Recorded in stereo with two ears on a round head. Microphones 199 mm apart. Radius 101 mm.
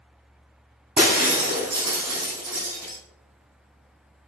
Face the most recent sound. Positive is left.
turn(degrees=-20)  # may be behind; listen again after turning